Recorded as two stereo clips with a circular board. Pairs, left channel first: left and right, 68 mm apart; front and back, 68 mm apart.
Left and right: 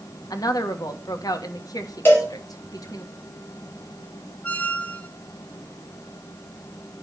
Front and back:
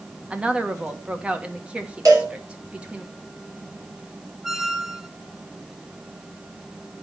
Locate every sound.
0.3 s a woman speaking: 105° left, 1.3 m
2.0 s a cowbell: 150° left, 4 m
4.4 s a squeak: 105° left, 0.6 m